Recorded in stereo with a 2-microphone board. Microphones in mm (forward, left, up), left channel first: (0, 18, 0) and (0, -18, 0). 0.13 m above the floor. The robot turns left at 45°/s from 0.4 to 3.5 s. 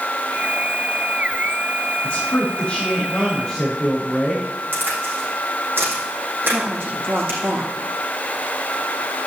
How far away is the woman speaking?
About 6.5 m.